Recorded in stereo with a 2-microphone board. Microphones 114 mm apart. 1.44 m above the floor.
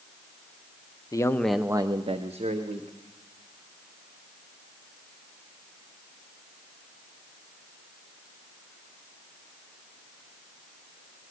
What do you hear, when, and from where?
1.1 s a man speaking: 30° left (ahead or behind), 0.6 m; by 3.0 s 80° right, 1.2 m